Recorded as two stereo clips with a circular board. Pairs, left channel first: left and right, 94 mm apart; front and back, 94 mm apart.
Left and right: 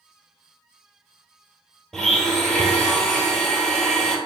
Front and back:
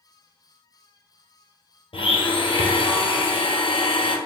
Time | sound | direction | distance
1.9 | a blender | 5° left | 0.7 m